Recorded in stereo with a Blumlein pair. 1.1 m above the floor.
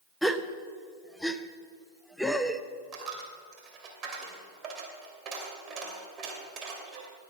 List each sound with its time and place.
0.2 s a gasp: straight ahead, 0.6 m
2.9 s a dropped coin: 30° right, 2.5 m